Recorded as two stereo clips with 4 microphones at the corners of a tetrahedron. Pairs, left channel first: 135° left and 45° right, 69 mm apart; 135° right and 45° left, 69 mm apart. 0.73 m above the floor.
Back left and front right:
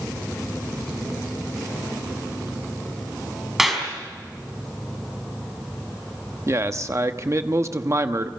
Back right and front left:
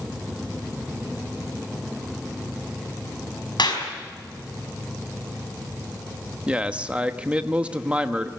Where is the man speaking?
25° right, 1.0 m.